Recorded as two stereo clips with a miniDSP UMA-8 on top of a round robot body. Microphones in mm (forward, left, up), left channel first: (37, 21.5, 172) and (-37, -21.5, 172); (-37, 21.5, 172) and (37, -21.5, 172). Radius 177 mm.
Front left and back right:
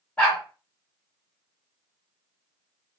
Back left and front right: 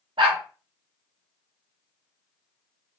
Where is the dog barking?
50° right, 1.1 m.